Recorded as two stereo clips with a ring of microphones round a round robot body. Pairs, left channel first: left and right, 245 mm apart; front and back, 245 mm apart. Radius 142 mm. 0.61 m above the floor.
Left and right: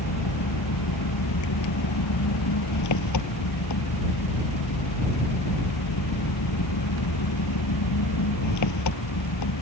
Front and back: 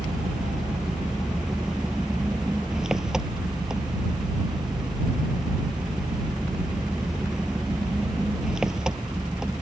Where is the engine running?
90° left.